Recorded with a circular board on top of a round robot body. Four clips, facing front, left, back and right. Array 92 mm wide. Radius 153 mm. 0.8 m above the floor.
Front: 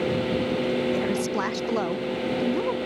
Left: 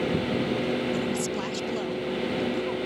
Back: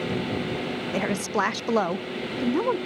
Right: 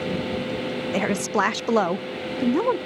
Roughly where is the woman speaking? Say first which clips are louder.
Right 5 dB, front 1 dB; right.